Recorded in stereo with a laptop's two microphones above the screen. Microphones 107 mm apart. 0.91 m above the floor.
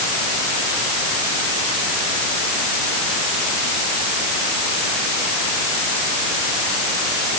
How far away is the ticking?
I don't hear ticking.